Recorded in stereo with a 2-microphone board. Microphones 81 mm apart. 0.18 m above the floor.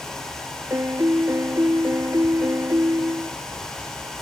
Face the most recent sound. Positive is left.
turn(degrees=-40)  # may be behind; listen again after turning